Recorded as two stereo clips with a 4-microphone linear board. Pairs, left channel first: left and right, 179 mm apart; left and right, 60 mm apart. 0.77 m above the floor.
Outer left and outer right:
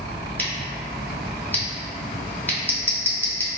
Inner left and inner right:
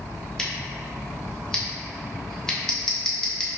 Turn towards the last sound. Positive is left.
turn(degrees=10)  # may be behind; listen again after turning